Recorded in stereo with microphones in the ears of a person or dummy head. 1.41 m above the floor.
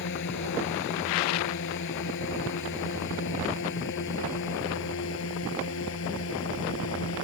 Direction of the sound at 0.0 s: 60° left (ahead or behind).